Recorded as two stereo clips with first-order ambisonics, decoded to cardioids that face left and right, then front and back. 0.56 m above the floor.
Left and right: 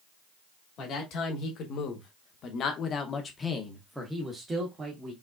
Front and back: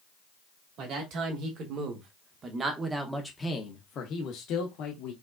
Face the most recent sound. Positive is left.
turn(degrees=-20)